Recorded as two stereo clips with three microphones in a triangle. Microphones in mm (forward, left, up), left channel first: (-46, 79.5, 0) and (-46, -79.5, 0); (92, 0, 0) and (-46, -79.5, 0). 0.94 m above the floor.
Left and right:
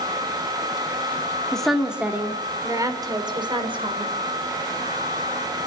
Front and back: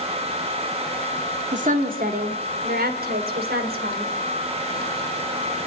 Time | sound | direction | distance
1.5 | a woman speaking | 175° left | 2.5 m